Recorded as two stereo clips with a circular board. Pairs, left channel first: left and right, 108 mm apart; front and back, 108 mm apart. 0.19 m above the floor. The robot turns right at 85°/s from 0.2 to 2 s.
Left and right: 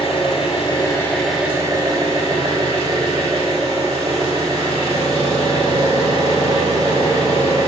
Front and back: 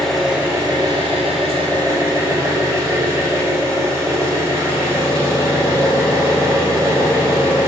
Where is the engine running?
90° left, 0.9 m; by 7.7 s 120° right, 0.9 m.